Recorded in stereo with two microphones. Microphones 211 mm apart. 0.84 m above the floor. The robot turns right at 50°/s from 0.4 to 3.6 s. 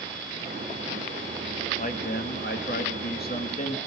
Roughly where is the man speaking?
Ahead left.